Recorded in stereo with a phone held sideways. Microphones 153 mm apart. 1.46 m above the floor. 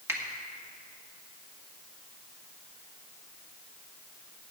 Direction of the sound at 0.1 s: 15° right (ahead or behind).